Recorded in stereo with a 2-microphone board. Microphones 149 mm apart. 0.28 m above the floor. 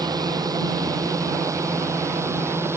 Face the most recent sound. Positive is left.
turn(degrees=-15)  # may be behind; listen again after turning